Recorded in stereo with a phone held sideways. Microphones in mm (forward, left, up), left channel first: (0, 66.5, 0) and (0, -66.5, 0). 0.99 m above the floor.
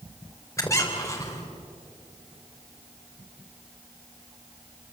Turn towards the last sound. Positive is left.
turn(degrees=25)  # may be behind; listen again after turning